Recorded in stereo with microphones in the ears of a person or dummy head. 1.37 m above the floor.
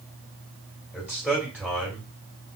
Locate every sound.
0.9 s a man speaking: centre (ahead or behind), 2 m